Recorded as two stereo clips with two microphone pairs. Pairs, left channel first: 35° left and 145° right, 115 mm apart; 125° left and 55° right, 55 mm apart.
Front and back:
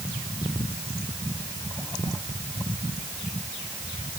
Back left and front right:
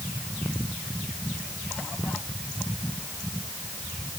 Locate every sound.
Only background noise.